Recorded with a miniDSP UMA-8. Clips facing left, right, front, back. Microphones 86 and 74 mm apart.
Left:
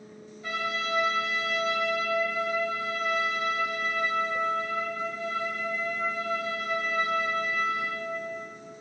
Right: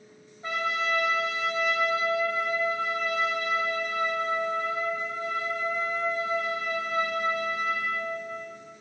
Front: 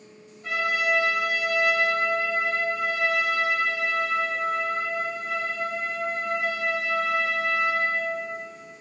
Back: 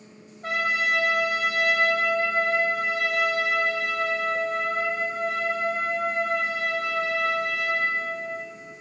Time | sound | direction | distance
0.4 | a trumpet | 150° right | 1.2 m